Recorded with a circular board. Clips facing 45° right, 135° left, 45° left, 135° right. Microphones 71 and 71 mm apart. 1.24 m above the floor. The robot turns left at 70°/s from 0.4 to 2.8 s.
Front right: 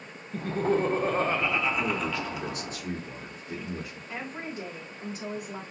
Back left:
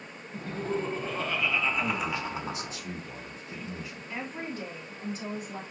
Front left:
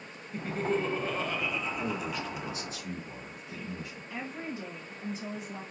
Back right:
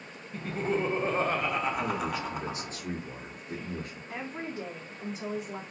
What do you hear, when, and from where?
0.3 s laughter: 35° right, 0.5 m; by 2.7 s 165° left, 0.5 m
1.8 s a man speaking: 35° right, 2.5 m; by 4.0 s 105° right, 2.5 m
4.1 s a woman speaking: 125° right, 2.5 m